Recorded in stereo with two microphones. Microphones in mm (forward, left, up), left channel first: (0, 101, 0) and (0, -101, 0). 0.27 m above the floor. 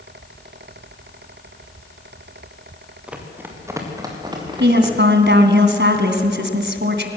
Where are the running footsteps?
5° right (ahead or behind), 3.5 m; by 5.0 s 25° right (ahead or behind), 5.5 m.